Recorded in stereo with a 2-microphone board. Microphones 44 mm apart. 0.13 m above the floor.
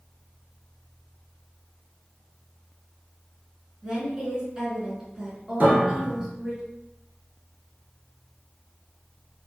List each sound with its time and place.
3.8 s a woman speaking: 15° right (ahead or behind), 1.1 m
5.6 s a piano: 45° right (ahead or behind), 0.8 m